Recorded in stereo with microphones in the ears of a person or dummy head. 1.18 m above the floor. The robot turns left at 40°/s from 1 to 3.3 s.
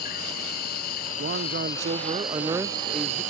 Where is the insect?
50° left; by 3.3 s 40° right.